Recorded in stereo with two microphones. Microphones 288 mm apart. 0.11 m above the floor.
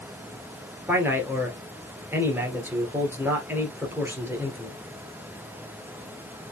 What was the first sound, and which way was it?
A man speaking, 5° right (ahead or behind).